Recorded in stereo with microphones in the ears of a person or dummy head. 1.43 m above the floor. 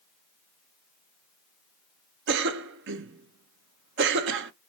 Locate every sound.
2.3 s a cough: 60° right (ahead or behind), 0.8 m